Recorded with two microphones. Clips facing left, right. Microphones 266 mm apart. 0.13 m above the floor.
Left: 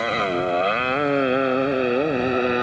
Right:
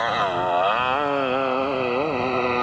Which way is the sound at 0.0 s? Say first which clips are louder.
Left 3 dB; 25° left (ahead or behind).